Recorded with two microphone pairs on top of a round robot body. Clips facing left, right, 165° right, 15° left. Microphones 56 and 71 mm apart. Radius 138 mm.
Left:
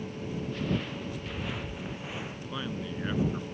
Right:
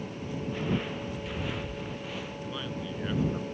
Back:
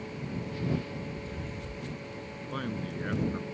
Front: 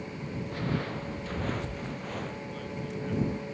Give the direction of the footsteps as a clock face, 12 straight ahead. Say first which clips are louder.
Right 2 dB, front 2 dB; 1 o'clock.